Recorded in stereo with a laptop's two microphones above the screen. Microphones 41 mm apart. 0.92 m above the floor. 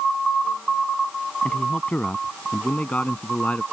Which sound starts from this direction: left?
A man speaking, at 1.4 s.